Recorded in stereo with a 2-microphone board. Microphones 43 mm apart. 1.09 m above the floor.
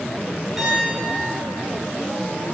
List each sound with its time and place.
0.6 s a piano: 10° right (ahead or behind), 6.5 m